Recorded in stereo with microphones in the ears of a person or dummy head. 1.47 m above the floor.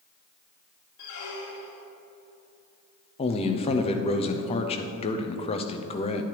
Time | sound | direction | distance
1.0 | a squeak | 65° left (ahead or behind) | 1.7 m
3.2 | a man speaking | 30° left (ahead or behind) | 0.6 m